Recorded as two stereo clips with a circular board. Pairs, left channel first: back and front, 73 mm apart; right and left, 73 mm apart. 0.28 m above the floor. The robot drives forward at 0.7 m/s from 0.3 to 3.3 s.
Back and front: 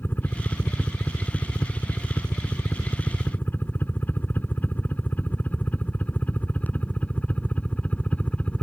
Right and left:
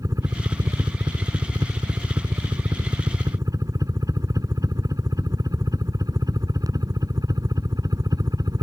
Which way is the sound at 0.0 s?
120° left.